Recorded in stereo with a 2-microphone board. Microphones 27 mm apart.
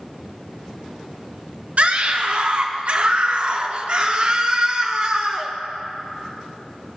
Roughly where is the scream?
Right.